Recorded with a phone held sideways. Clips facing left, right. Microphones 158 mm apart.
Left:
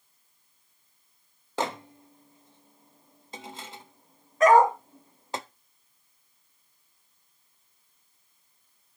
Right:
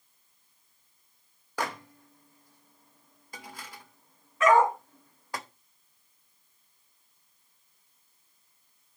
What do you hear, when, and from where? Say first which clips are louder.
1.6 s a microwave: left 3 dB; 25° left (ahead or behind), 0.5 m
4.4 s a dog barking: left 3 dB; 40° left (ahead or behind), 1.7 m